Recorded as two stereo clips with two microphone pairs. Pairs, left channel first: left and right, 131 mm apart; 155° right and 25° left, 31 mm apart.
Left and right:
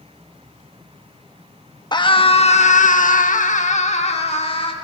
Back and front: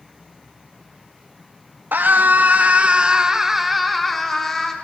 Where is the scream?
35° left, 1.6 m; by 4.7 s 135° left, 2.5 m.